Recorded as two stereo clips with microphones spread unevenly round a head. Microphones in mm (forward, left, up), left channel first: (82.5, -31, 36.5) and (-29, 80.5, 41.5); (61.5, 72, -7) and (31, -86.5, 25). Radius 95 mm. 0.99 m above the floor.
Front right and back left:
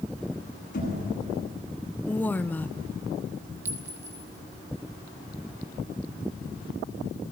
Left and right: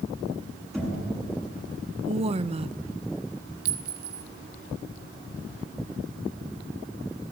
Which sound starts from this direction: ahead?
Knocking, at 0.7 s.